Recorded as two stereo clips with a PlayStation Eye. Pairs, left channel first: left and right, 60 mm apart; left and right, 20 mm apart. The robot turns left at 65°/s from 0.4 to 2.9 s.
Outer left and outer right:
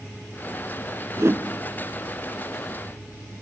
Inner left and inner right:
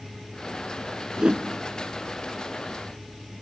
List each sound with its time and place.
1.2 s a whoosh: 55° right (ahead or behind), 0.5 m; by 1.4 s 40° right (ahead or behind), 0.5 m